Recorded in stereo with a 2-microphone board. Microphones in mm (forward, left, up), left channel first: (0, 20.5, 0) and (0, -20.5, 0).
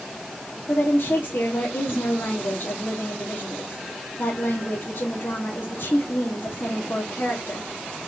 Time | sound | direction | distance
0.7 | a woman speaking | 70° left (ahead or behind) | 1.5 m